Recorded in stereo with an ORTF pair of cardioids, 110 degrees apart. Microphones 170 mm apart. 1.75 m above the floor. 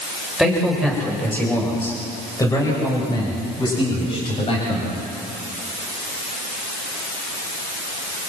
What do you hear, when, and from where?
0.4 s a man speaking: straight ahead, 7.5 m; by 5.0 s 40° left, 10.5 m